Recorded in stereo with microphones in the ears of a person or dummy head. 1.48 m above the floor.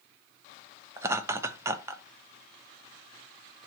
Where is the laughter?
20° right (ahead or behind), 0.9 m.